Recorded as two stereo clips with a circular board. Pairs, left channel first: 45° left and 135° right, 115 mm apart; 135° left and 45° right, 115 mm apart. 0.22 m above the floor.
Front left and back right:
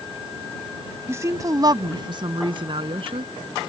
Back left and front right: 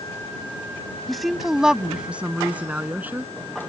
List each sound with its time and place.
1.1 s a woman speaking: 140° right; by 3.3 s 115° right